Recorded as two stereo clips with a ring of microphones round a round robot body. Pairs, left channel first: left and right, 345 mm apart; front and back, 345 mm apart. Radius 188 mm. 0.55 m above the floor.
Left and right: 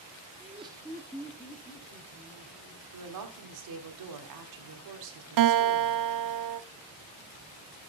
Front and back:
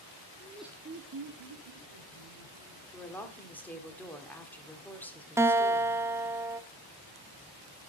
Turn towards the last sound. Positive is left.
turn(degrees=-100)